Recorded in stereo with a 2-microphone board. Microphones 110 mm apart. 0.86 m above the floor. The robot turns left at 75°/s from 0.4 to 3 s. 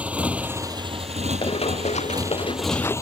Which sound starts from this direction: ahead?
A motorcycle, at 0.0 s.